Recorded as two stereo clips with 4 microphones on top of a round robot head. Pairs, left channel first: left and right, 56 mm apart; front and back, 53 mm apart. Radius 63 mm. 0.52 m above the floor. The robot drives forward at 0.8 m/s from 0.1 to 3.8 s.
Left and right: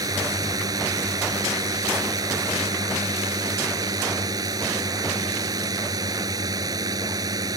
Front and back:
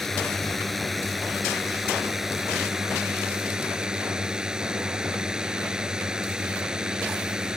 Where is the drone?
85° right; by 7.6 s 100° right.